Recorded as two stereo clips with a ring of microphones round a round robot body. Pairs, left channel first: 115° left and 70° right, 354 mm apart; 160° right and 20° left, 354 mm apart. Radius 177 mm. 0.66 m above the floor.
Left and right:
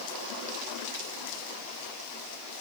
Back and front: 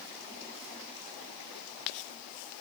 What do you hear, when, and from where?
Only background noise.